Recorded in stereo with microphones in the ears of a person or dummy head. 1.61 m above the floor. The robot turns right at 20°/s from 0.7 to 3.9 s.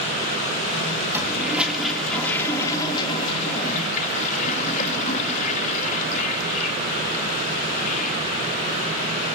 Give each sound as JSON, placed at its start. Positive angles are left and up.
{"t": 1.1, "sound": "a toilet flushing", "azimuth_deg": -15, "distance_m": 2.5}